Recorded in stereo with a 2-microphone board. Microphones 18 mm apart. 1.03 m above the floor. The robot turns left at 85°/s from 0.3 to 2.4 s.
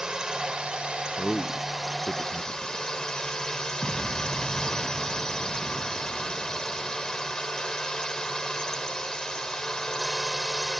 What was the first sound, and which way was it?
A drone, 45° right.